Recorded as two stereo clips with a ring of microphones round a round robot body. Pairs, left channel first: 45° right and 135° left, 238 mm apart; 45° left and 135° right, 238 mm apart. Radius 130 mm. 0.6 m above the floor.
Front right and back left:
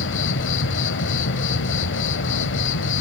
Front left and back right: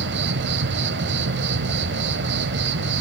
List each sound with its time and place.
0.0 s an insect: 90° right, 1.2 m